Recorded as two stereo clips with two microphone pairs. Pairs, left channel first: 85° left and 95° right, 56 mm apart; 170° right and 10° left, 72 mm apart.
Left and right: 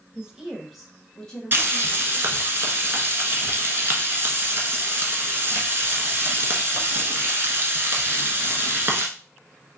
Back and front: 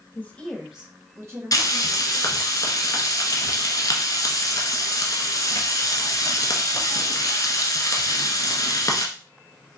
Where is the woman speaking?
145° right, 1.1 m; by 2.5 s 20° left, 2.5 m.